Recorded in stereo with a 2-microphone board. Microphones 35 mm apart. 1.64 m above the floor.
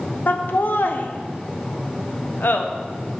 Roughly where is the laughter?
Left.